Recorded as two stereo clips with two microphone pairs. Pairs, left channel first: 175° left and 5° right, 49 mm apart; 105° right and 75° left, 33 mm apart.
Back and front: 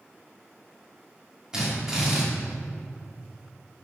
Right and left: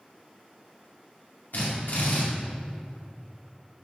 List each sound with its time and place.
1.5 s a drill: 80° right, 3 m